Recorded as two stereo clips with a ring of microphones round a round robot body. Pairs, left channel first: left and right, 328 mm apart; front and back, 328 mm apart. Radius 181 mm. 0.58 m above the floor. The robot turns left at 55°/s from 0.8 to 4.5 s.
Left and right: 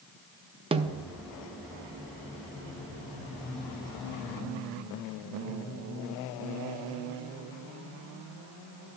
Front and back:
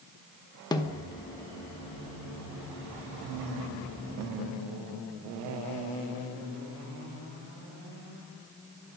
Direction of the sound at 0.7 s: 55° right.